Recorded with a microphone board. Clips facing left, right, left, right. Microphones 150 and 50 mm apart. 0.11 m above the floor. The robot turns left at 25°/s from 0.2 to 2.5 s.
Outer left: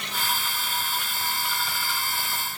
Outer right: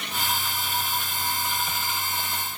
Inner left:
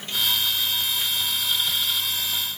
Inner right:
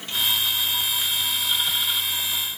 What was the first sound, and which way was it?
Only background noise.